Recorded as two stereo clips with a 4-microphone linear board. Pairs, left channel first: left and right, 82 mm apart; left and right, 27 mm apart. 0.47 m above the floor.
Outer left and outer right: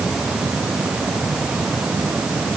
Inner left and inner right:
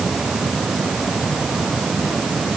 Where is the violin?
I don't hear a violin.